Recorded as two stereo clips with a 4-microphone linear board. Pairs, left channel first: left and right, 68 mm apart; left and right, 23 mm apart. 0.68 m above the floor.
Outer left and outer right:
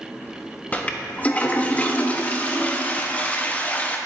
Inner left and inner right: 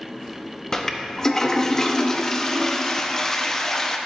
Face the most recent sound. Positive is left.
turn(degrees=25)  # may be behind; listen again after turning